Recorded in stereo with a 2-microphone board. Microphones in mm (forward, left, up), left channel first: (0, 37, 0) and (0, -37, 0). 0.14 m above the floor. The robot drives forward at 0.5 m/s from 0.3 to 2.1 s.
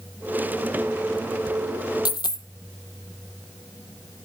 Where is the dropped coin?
80° left, 0.7 m; by 2.5 s 75° left (ahead or behind), 0.7 m.